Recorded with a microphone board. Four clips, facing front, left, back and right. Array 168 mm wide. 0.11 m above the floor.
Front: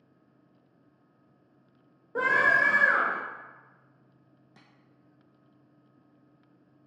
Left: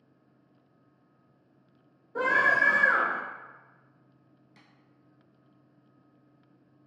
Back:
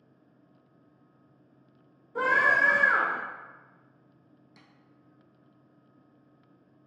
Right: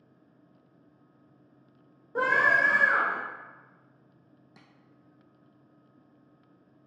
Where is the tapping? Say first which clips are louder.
Right 2 dB, front 1 dB; 55° right, 0.7 m.